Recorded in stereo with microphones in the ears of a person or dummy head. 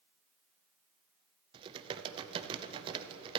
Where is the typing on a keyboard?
35° right (ahead or behind), 0.8 m.